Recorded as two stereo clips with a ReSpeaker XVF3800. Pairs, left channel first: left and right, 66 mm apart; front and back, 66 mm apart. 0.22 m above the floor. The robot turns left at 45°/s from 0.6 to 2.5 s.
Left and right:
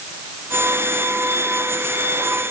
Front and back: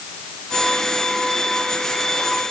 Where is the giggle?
I don't hear a giggle.